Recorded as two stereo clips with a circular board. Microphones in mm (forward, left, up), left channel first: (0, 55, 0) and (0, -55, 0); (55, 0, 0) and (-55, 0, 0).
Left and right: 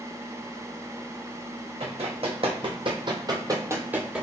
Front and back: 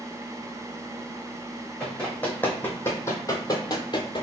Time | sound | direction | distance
1.8 | running footsteps | 80° right | 1.5 m